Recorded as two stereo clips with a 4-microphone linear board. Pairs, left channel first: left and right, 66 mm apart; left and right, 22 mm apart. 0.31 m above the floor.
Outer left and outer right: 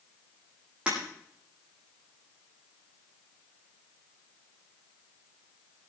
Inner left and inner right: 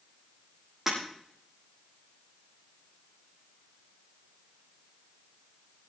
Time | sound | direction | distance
0.9 | breaking glass | 15° right (ahead or behind) | 9 m